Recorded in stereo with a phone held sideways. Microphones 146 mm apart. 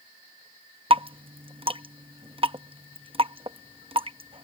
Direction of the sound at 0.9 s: 40° right (ahead or behind).